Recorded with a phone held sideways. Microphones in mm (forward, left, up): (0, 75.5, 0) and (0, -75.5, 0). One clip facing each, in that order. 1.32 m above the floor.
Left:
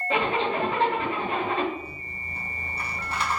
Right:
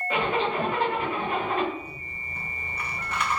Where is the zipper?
30° left (ahead or behind), 1.9 m.